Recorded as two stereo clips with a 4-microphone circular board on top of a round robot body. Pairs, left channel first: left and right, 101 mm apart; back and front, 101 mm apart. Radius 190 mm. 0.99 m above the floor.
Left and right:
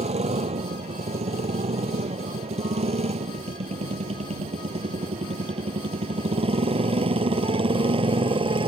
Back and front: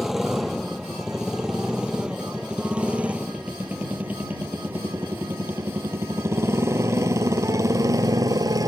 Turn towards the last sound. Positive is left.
turn(degrees=-55)